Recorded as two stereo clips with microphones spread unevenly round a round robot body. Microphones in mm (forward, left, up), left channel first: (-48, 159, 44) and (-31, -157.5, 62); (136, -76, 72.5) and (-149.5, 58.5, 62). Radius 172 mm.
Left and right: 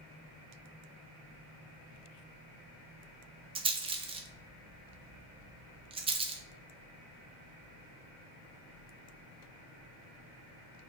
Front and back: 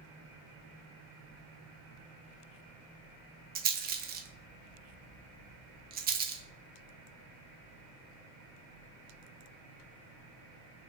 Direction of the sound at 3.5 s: 160° right.